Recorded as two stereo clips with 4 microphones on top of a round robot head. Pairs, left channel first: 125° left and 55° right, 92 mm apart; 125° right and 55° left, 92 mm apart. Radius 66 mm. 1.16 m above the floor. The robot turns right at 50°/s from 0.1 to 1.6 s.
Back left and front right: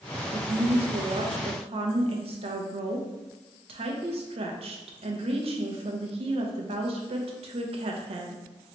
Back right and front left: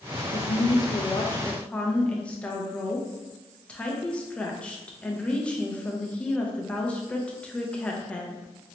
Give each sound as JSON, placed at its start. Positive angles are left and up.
{"t": 0.3, "sound": "a woman speaking", "azimuth_deg": -110, "distance_m": 0.8}